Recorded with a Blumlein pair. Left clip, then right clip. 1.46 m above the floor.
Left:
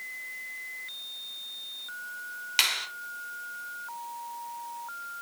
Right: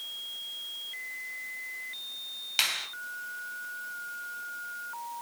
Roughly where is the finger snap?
Ahead.